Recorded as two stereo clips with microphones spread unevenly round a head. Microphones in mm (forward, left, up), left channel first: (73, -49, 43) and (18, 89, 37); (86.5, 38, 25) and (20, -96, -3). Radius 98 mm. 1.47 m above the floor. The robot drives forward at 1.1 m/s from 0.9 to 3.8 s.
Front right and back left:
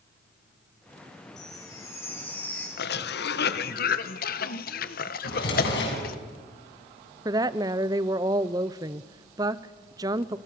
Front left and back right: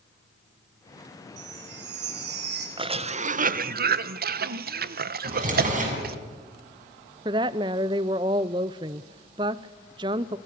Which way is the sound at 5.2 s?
80° right.